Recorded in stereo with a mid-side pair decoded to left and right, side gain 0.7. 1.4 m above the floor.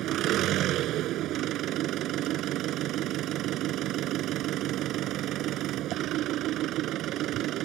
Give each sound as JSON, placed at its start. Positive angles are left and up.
{"t": 0.0, "sound": "an engine running", "azimuth_deg": -55}